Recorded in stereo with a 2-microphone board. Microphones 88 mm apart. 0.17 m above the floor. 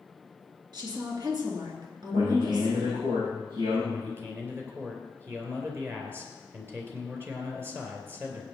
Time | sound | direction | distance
0.7 | a woman speaking | 50° right (ahead or behind) | 3 m
2.1 | a man speaking | 80° right | 6.5 m
3.9 | a man speaking | 25° right (ahead or behind) | 2.5 m